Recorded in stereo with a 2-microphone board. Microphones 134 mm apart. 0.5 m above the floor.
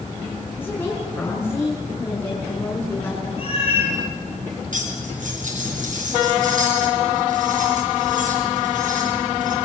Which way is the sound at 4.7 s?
75° right (ahead or behind).